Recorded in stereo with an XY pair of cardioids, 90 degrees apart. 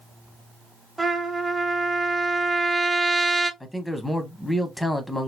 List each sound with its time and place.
1.0 s a trumpet: 20° right, 1.2 m
3.6 s a man speaking: 5° left, 0.9 m